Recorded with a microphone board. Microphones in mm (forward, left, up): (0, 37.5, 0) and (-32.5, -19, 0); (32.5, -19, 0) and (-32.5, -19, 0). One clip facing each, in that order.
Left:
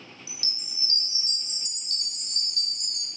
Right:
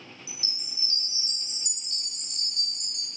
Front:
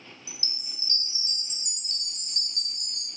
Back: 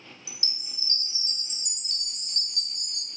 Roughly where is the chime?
Ahead left.